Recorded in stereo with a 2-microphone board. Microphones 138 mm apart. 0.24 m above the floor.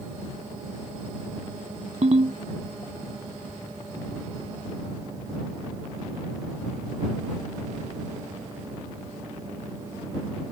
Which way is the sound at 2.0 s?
55° right (ahead or behind).